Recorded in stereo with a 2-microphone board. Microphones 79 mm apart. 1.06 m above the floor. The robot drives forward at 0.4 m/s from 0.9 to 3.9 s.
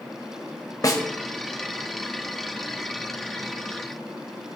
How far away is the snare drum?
About 1.3 m.